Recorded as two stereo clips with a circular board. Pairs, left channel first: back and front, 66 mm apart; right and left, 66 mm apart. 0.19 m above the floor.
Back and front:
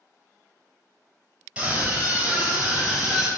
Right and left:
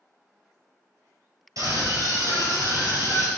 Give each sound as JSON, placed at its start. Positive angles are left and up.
{"t": 1.6, "sound": "a scream", "azimuth_deg": 75, "distance_m": 3.5}